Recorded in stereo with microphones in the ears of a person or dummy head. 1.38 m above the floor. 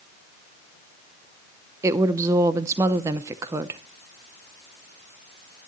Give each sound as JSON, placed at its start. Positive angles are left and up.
{"t": 1.8, "sound": "a woman speaking", "side_deg": -15, "distance_m": 0.6}